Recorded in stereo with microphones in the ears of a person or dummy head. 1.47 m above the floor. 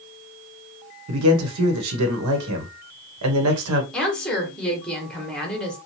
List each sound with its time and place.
1.1 s a man speaking: 85° right, 1.0 m
3.9 s a woman speaking: 5° left (ahead or behind), 1.1 m